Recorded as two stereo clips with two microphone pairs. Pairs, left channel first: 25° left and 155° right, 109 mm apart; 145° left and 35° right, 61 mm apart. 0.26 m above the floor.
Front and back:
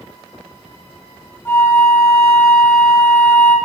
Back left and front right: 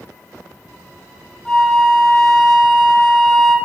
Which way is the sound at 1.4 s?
80° left.